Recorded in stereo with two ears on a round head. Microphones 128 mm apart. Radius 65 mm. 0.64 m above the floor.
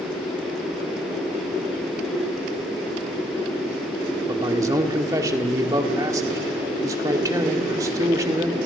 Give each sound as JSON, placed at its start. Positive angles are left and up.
{"t": 4.3, "sound": "a man speaking", "side_deg": -25, "distance_m": 1.7}